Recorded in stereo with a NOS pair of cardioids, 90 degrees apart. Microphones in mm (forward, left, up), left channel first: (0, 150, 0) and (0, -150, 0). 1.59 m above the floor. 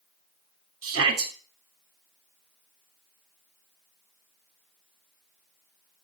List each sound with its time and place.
0.8 s a shout: 50° right, 6.5 m